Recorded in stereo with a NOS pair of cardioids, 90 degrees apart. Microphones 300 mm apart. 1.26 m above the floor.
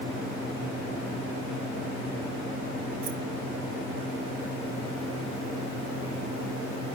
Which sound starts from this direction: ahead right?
Keys jangling, at 3.0 s.